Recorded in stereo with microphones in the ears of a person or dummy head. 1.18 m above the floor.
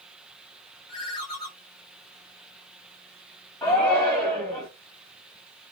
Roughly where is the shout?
Left.